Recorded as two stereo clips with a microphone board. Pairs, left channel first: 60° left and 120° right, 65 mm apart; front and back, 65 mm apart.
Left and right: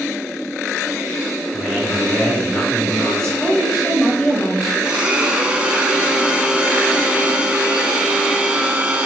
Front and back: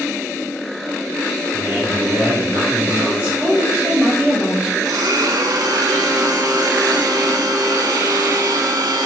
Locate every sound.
1.5 s a man speaking: 135° left, 1.5 m
3.4 s a woman speaking: 150° left, 1.4 m
4.8 s a blender: 165° left, 0.5 m